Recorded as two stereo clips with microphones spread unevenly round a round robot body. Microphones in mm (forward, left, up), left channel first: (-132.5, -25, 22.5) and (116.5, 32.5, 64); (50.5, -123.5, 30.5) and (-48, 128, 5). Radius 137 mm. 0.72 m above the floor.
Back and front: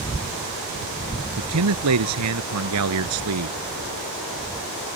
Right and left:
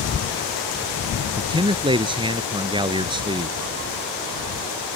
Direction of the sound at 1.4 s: 40° left.